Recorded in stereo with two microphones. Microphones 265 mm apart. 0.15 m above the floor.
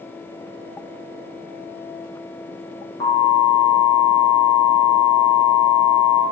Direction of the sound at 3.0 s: 70° right (ahead or behind).